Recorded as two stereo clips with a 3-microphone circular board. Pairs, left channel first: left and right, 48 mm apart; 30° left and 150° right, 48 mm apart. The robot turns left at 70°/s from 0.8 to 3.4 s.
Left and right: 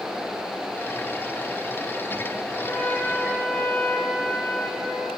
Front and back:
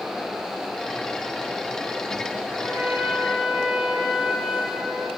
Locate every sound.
2.5 s a trumpet: 170° right, 9.5 m; by 5.1 s 125° left, 9.5 m